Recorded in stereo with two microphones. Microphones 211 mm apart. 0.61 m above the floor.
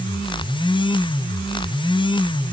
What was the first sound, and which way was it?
Only background noise.